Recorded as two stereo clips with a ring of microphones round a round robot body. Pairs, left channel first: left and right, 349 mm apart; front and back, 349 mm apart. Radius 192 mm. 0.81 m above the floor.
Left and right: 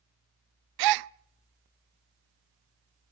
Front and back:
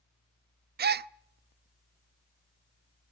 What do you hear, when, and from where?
0.8 s a gasp: 115° right, 0.5 m